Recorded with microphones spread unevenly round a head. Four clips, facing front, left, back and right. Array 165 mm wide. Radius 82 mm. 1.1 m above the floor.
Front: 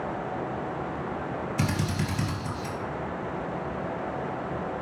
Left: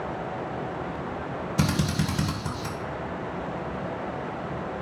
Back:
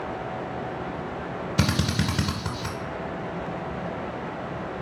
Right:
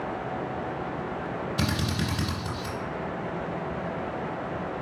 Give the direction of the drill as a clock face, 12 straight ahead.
6 o'clock.